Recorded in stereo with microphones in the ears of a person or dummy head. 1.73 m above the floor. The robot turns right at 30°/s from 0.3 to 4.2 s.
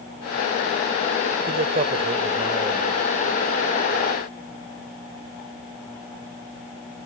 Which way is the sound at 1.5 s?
50° right.